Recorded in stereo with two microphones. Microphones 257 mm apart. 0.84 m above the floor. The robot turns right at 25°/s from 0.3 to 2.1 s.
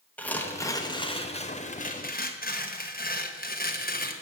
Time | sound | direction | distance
0.2 | tearing paper | 10° left | 1.4 m